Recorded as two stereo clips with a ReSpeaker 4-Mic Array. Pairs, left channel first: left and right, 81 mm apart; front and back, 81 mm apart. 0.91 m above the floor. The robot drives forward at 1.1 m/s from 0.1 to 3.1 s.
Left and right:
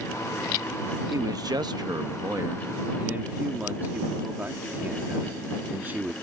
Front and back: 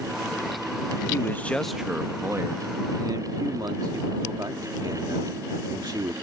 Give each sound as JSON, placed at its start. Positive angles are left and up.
{"t": 1.1, "sound": "a man speaking", "azimuth_deg": -50}